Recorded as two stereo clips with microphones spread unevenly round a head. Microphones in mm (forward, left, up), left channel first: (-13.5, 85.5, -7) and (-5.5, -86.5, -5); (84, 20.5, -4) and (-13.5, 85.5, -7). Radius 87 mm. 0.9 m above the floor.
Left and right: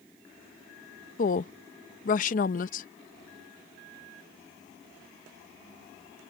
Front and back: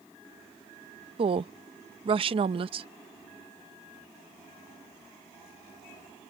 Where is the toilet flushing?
I don't hear a toilet flushing.